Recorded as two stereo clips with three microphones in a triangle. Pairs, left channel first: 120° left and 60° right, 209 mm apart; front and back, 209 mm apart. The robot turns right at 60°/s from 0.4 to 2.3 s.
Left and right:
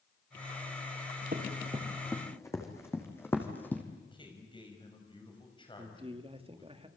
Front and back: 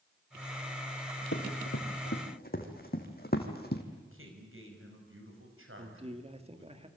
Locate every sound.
1.3 s running footsteps: 15° right, 4.5 m; by 3.8 s 40° left, 2.5 m
4.0 s a man speaking: 175° right, 5.5 m
5.8 s a man speaking: 120° right, 1.9 m